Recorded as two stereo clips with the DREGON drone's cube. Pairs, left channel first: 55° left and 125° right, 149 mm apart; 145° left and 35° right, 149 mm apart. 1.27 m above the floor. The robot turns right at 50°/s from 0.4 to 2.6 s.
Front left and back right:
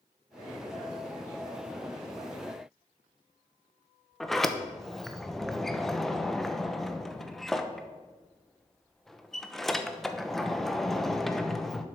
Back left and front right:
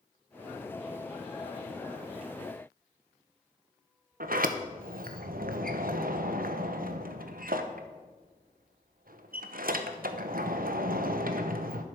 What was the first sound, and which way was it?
A sliding door, 30° right.